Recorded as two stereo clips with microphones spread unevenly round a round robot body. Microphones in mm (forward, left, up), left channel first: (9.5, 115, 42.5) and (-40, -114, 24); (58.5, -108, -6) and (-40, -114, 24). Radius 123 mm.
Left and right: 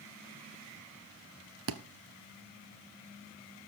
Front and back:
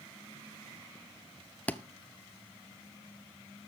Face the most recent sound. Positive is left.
turn(degrees=-75)